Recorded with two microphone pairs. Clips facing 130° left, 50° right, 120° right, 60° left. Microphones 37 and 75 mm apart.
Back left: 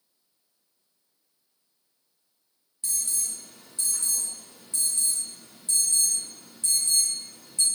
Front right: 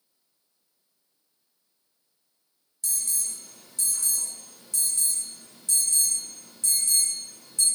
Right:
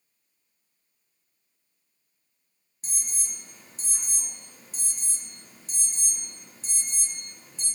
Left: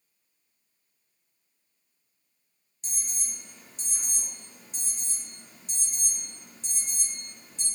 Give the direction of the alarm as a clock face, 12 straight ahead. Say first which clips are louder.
Even, right 1 dB; 6 o'clock.